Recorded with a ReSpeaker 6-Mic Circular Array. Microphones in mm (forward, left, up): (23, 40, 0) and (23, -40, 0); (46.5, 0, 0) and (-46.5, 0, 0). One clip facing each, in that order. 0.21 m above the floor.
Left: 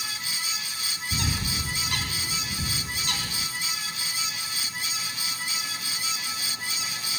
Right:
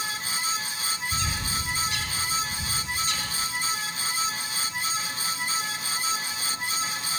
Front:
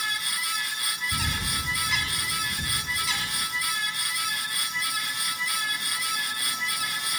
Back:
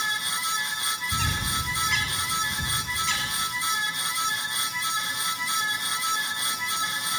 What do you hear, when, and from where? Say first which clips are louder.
1.1 s a bird: right 1 dB, back 3 dB; 85° left, 2.5 m